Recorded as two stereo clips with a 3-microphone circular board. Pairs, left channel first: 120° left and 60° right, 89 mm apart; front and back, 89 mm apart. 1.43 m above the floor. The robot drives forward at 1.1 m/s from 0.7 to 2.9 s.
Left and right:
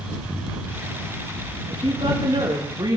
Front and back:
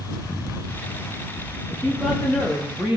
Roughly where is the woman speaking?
Right.